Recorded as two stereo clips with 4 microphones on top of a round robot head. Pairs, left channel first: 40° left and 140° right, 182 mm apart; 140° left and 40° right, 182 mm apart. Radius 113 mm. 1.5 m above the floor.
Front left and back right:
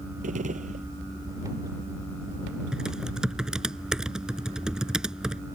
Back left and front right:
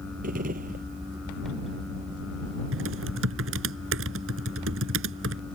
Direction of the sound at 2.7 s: 55° right.